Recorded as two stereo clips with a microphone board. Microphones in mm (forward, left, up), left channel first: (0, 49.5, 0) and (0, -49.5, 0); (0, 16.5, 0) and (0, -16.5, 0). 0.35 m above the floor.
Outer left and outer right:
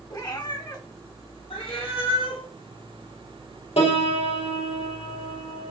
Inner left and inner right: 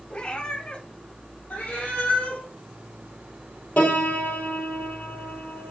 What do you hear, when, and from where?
0.1 s a cat meowing: 45° left (ahead or behind), 0.7 m
1.5 s a cat meowing: 65° left (ahead or behind), 1.9 m
3.8 s a piano: 85° left, 1.7 m